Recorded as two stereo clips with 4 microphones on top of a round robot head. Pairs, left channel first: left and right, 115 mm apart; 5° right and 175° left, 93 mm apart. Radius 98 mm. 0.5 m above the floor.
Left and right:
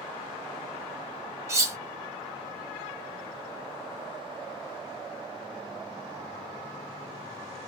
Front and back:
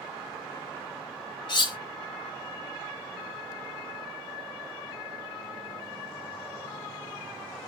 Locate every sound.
1.5 s cutlery clinking: 30° right, 0.6 m